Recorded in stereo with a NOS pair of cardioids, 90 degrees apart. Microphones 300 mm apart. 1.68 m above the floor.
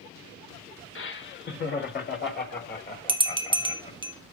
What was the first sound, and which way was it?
Laughter, 40° left.